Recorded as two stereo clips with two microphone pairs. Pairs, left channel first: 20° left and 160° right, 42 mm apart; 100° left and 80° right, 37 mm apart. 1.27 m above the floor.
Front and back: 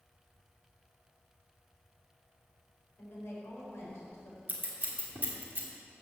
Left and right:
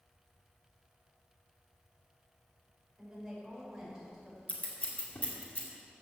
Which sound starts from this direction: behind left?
Scissors, at 4.5 s.